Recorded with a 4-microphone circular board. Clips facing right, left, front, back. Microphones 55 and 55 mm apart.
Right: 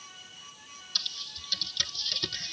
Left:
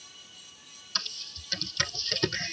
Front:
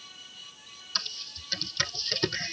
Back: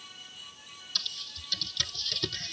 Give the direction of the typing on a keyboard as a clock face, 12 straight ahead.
11 o'clock.